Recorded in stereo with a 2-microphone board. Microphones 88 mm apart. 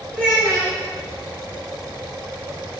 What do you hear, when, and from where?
0.1 s a child speaking: 5° right (ahead or behind), 1.1 m